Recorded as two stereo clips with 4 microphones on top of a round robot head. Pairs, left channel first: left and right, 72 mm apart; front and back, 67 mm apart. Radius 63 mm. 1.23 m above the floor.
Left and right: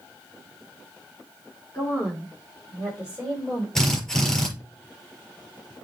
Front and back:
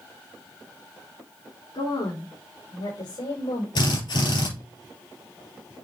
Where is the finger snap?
I don't hear a finger snap.